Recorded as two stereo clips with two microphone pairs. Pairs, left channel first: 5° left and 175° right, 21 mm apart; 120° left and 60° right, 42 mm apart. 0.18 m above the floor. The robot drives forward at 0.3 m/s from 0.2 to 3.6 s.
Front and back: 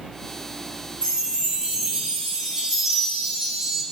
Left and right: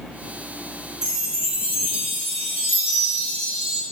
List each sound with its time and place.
1.0 s a chime: 140° right, 4 m; by 3.8 s 145° right, 4.5 m